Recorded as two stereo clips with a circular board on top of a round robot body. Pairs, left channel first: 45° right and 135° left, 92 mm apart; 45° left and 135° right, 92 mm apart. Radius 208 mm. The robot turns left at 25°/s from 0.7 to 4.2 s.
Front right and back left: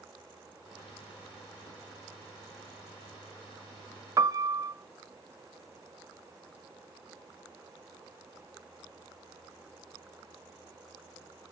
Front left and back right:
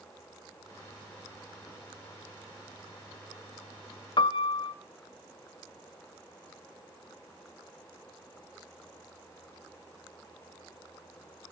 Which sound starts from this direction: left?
A piano, at 4.2 s.